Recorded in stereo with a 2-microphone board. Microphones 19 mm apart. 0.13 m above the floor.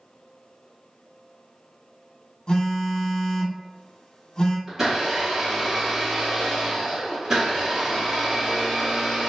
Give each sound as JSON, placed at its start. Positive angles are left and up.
{"t": 2.5, "sound": "a phone buzzing", "side_deg": 50, "distance_m": 0.9}
{"t": 4.7, "sound": "a blender", "side_deg": -25, "distance_m": 1.8}